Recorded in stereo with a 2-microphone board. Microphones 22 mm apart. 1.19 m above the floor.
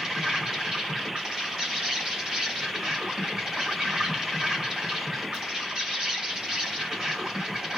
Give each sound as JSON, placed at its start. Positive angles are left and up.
{"t": 0.0, "sound": "an insect", "side_deg": -40, "distance_m": 2.5}